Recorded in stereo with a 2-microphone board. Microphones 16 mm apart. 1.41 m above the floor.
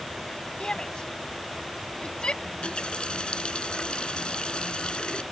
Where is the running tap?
85° left.